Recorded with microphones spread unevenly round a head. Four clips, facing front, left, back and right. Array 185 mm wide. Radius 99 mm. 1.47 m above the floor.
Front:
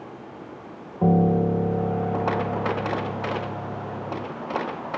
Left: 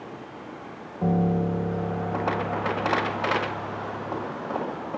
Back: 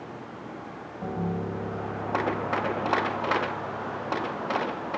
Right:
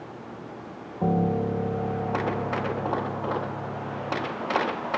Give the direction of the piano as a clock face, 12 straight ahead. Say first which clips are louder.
Even, front 12 dB; 12 o'clock.